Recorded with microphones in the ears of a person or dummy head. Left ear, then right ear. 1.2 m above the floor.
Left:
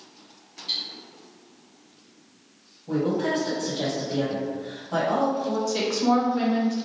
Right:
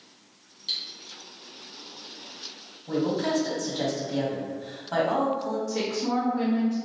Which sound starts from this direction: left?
A woman speaking, at 5.7 s.